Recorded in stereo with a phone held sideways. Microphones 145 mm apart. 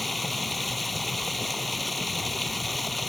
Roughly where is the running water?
Centre.